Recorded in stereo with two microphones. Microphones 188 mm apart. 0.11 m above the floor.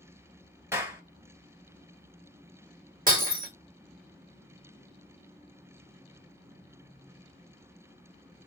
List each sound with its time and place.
0.7 s a clap: 15° right (ahead or behind), 1.5 m
3.1 s breaking glass: 45° right (ahead or behind), 1.6 m